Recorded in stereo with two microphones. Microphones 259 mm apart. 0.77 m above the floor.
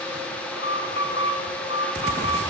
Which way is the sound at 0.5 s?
20° right (ahead or behind).